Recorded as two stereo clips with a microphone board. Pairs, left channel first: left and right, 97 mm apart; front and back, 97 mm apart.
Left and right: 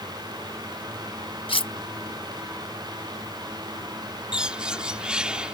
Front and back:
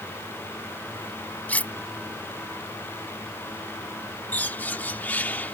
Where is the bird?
30° right.